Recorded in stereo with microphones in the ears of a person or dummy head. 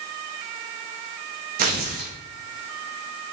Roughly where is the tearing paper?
Right.